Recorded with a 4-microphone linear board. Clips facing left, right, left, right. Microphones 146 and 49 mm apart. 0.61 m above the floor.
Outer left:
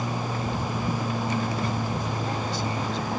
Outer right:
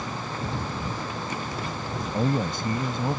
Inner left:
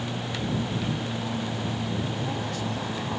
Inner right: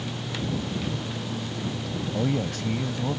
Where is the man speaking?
60° right (ahead or behind).